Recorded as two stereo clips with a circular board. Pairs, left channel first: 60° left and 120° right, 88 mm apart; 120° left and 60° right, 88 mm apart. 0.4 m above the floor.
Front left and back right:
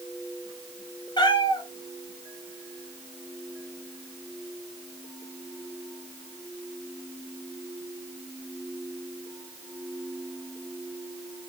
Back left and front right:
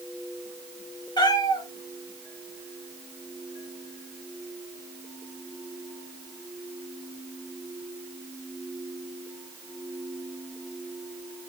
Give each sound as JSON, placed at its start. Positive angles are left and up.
{"t": 1.2, "sound": "a cat meowing", "azimuth_deg": 90, "distance_m": 3.5}